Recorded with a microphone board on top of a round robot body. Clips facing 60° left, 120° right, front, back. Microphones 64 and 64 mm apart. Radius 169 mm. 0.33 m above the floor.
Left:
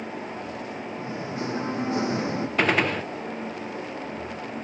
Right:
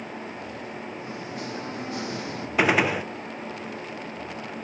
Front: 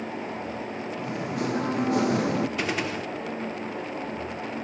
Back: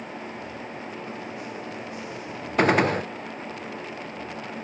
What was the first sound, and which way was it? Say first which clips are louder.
Singing: left 3 dB, front 6 dB; straight ahead.